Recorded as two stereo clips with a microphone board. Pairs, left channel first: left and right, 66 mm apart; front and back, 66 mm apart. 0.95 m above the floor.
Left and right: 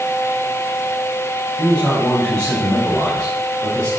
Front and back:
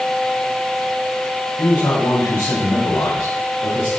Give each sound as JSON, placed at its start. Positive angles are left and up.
{"t": 1.6, "sound": "a man speaking", "azimuth_deg": 20, "distance_m": 4.0}